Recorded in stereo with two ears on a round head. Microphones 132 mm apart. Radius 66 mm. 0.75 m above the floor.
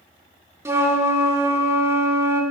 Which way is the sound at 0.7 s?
15° right (ahead or behind).